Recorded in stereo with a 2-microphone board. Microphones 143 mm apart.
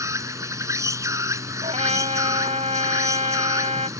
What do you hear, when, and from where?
0.0 s an insect: 20° right (ahead or behind)
1.6 s a trumpet: 50° right (ahead or behind)